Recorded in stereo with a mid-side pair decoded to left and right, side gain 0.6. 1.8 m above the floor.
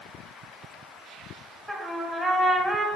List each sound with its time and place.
1.7 s a trumpet: straight ahead, 0.7 m